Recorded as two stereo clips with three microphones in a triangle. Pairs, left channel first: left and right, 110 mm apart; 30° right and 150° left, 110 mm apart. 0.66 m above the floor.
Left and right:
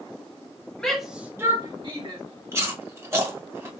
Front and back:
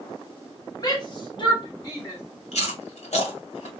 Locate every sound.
0.8 s a shout: 10° left, 1.4 m; by 2.2 s 80° right, 1.6 m
2.5 s chewing: 25° right, 1.7 m